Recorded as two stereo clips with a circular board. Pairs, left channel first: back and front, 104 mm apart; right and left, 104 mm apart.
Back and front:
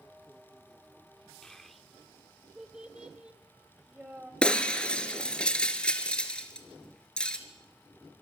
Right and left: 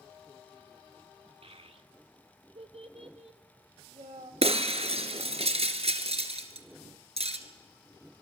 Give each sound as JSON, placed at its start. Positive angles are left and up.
{"t": 1.4, "sound": "a child speaking", "azimuth_deg": 100, "distance_m": 1.4}
{"t": 4.4, "sound": "breaking glass", "azimuth_deg": 100, "distance_m": 1.9}